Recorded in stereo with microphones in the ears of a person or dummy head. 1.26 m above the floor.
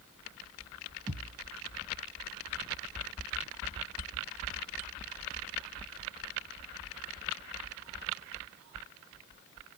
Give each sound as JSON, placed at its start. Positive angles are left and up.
{"t": 1.1, "sound": "a thud", "side_deg": 0, "distance_m": 2.5}